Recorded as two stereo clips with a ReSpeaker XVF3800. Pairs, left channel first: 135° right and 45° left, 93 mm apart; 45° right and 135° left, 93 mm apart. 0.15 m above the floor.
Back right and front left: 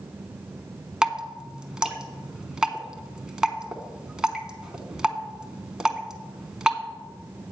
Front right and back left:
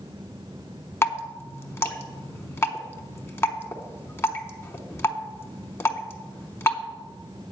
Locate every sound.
1.0 s dripping: 30° right, 0.8 m